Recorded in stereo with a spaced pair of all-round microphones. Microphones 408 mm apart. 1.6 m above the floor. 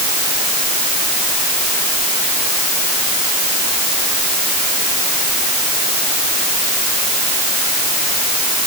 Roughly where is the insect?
No insect in this recording.